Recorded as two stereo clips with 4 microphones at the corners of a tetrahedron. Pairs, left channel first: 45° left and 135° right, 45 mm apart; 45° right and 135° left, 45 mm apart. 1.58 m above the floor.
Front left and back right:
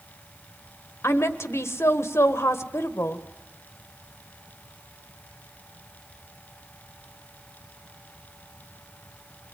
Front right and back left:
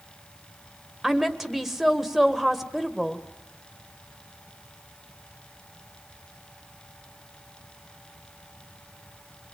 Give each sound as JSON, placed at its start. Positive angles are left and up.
{"t": 1.0, "sound": "a woman speaking", "azimuth_deg": 50, "distance_m": 1.6}